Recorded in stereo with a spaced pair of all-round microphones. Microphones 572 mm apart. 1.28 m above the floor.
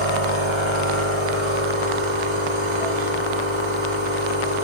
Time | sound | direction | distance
0.0 | a machine running | 50° right (ahead or behind) | 1.1 m